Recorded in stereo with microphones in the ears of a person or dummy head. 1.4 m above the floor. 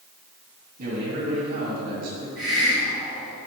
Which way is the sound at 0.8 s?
50° right (ahead or behind).